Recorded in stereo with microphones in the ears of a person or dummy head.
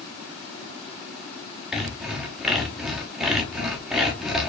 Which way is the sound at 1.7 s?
Centre (ahead or behind).